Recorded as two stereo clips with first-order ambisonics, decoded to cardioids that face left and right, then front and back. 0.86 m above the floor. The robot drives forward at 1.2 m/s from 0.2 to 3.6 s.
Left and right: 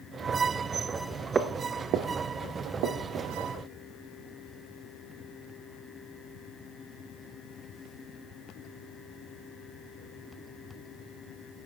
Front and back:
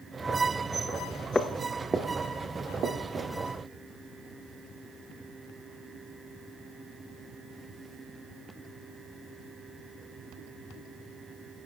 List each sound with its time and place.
1.4 s footsteps: 55° right, 0.8 m; by 3.3 s 120° right, 3 m